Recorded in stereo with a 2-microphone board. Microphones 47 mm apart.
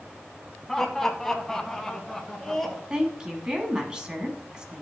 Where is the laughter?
10° left (ahead or behind), 1.1 m; by 2.8 s 5° left (ahead or behind), 2 m.